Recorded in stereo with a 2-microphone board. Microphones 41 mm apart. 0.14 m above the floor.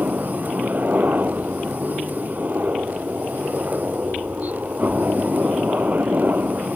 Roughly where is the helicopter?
Right.